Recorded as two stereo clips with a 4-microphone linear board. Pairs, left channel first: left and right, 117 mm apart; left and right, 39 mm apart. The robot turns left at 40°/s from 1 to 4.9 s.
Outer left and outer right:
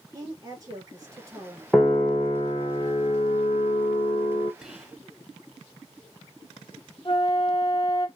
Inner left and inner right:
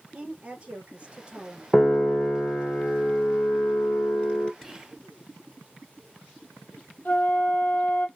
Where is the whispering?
5° right (ahead or behind), 1.1 m; by 5.0 s 10° right (ahead or behind), 1.1 m.